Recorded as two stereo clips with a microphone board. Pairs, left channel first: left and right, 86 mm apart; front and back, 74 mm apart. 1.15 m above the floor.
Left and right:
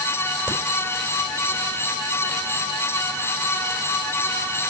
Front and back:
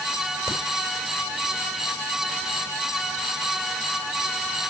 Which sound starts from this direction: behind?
A crack, at 0.5 s.